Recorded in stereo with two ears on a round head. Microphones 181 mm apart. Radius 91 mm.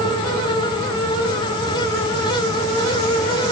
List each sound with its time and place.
Only background noise.